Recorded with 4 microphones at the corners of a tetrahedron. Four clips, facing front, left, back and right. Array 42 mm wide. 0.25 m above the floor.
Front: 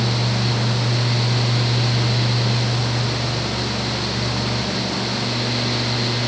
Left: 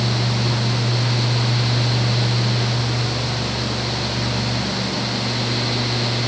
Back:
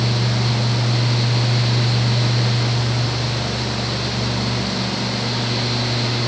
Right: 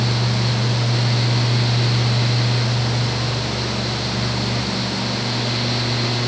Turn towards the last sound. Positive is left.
No sound to turn to.